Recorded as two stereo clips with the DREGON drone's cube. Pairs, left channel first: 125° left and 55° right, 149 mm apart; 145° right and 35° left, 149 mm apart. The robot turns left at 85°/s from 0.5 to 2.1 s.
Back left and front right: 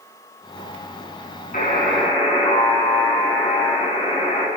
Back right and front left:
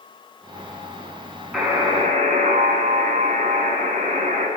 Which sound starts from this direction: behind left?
A buzzer, at 1.5 s.